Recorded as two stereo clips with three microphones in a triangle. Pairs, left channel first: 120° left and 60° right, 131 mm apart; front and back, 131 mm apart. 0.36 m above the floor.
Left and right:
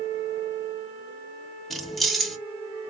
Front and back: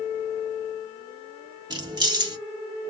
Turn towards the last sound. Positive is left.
turn(degrees=-155)